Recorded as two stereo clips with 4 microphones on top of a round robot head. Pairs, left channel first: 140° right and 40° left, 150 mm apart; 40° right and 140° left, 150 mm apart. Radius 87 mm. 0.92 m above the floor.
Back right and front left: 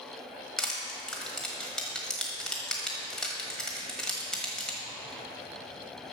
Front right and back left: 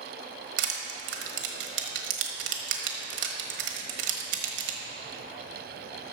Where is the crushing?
135° left, 1.2 m.